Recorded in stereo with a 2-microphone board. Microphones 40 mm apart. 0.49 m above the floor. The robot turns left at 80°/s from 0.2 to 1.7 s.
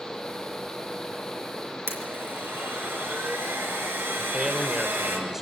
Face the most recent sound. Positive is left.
turn(degrees=-10)  # may be behind; listen again after turning